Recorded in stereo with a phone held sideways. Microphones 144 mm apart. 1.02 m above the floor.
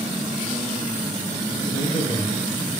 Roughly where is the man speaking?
Left.